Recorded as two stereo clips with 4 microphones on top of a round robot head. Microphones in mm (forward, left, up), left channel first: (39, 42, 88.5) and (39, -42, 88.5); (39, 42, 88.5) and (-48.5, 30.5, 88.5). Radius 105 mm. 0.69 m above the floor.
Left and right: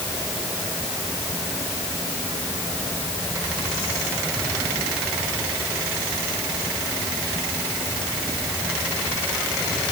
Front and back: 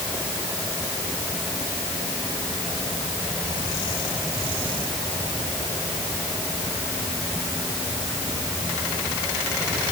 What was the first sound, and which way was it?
Only background noise.